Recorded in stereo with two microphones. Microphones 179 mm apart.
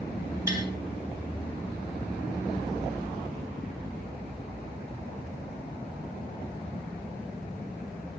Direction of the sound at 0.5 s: 15° right (ahead or behind).